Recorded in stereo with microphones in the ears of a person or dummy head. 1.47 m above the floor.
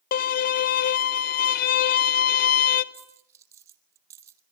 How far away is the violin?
About 1.0 m.